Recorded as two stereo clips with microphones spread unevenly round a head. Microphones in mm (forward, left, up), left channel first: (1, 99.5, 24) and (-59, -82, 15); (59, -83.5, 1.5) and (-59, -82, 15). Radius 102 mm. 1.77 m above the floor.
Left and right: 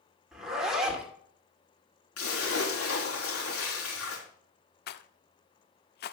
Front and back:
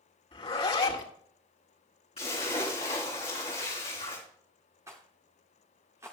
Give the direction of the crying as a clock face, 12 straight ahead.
I don't hear crying.